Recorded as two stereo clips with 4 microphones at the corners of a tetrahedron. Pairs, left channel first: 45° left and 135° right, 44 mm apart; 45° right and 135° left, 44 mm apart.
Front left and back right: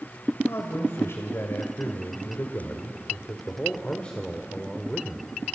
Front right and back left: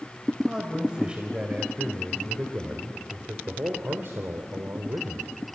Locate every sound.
0.5 s a man speaking: 65° left, 3 m; by 5.5 s 135° left, 2.0 m